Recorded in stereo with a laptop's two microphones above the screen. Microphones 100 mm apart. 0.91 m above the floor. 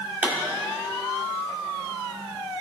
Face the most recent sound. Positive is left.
turn(degrees=-15)  # may be behind; listen again after turning